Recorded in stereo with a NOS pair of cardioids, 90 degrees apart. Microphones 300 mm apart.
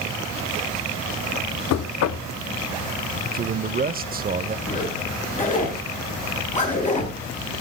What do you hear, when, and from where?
1.7 s knocking: 60° left, 1.0 m
3.3 s a man speaking: 30° right, 0.9 m
4.7 s a zipper: 25° left, 10 m